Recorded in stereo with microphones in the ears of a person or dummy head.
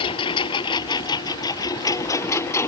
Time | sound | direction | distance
0.0 | a lawn mower | 30° left (ahead or behind) | ?